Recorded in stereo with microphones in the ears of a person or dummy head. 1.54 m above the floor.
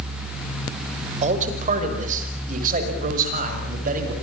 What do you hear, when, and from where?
1.2 s a man speaking: 35° right (ahead or behind), 5.5 m; by 4.1 s 45° right (ahead or behind), 7.5 m